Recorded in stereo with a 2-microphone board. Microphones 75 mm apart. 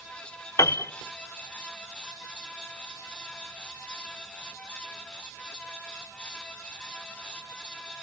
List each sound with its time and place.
0.6 s a piano: 45° left (ahead or behind), 0.6 m